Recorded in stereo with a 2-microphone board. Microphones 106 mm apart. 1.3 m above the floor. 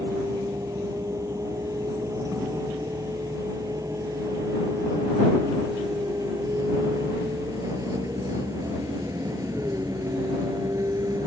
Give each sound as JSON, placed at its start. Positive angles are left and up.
{"t": 0.0, "sound": "a vehicle", "side_deg": -30}